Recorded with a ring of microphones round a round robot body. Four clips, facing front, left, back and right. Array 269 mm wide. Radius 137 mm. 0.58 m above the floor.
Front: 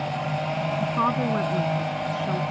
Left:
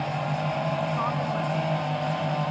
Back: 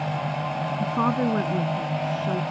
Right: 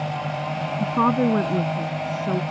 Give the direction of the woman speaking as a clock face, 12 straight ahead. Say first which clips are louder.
Right 7 dB, back 2 dB; 4 o'clock.